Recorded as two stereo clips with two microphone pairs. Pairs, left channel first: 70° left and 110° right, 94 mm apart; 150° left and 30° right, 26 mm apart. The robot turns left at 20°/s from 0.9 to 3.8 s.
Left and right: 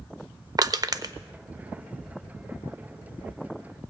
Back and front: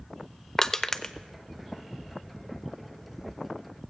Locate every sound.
0.6 s crushing: 140° right, 0.6 m; by 1.1 s 145° right, 0.6 m